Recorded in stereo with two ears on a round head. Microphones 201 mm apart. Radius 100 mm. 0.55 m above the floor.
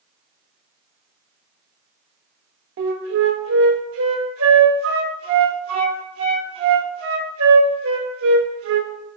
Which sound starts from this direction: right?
A flute, at 2.8 s.